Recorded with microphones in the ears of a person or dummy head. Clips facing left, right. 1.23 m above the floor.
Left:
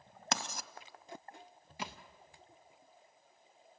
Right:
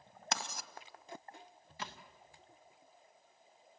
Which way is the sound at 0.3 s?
65° left (ahead or behind).